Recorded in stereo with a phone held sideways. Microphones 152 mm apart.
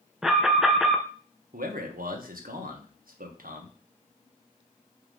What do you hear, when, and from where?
0.2 s an alarm: 5° right (ahead or behind), 0.9 m
1.5 s a man speaking: 75° right (ahead or behind), 1.4 m